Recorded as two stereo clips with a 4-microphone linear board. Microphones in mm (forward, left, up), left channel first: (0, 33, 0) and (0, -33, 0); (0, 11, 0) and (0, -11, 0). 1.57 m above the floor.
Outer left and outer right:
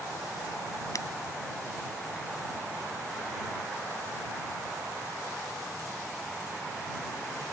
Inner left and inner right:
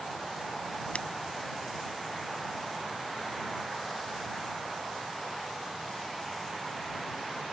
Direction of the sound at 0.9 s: 60° left (ahead or behind).